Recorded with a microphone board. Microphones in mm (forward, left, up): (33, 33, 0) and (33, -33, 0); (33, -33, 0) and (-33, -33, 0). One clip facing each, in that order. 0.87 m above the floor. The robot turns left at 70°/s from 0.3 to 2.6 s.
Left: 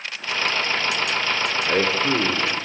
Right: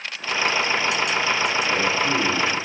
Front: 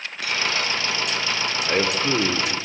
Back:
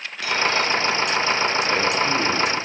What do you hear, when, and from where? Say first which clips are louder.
1.6 s a man speaking: left 1 dB, back 1 dB; 65° left, 2.0 m; by 2.6 s straight ahead, 2.0 m